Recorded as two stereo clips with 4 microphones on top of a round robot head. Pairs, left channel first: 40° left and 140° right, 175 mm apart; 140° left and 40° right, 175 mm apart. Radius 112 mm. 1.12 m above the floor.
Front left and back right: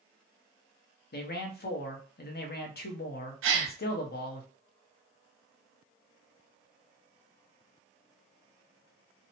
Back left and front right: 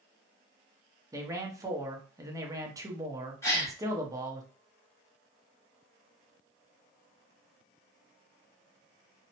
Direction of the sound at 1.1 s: 30° left.